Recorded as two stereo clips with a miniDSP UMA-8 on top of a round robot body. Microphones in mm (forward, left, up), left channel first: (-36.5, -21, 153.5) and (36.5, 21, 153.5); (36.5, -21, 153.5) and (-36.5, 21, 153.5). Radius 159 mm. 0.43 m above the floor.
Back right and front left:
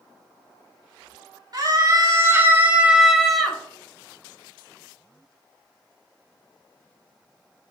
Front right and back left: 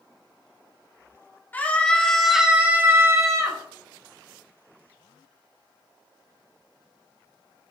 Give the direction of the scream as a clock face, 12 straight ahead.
11 o'clock.